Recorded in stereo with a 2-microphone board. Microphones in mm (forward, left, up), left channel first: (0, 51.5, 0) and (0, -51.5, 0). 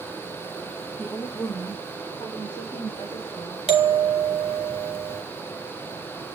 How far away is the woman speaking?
About 1.0 m.